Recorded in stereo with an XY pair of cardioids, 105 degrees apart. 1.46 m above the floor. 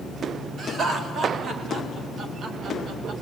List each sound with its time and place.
0.6 s laughter: 50° right, 4.5 m; by 3.1 s 65° right, 2.5 m